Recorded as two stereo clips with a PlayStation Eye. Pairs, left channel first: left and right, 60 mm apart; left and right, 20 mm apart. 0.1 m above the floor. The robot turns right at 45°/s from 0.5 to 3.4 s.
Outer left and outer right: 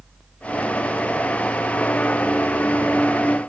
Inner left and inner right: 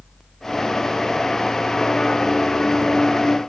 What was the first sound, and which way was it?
Only background noise.